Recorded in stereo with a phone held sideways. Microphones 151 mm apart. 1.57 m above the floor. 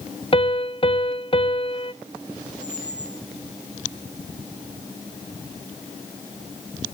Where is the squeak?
50° right (ahead or behind), 2.5 m.